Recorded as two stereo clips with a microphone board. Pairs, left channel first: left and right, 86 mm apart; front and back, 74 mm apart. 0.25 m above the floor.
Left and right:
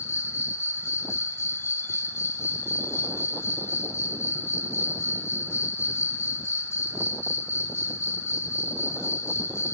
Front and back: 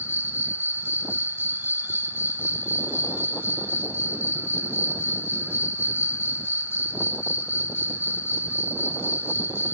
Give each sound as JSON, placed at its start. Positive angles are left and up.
{"t": 0.0, "sound": "an insect", "azimuth_deg": 130, "distance_m": 0.9}